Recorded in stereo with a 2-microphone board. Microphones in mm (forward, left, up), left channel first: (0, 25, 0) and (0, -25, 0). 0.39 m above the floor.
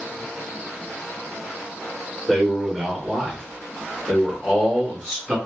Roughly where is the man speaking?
Centre.